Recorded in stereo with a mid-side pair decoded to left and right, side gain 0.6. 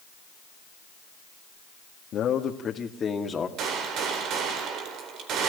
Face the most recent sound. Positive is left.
turn(degrees=-60)